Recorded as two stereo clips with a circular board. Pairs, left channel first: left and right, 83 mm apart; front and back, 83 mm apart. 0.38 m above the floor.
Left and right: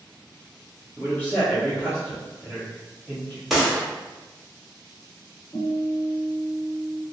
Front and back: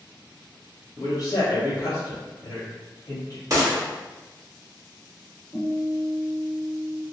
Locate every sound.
1.0 s a man speaking: 25° left, 1.3 m
3.5 s a gunshot: 175° right, 0.9 m
5.5 s a guitar: 90° left, 1.7 m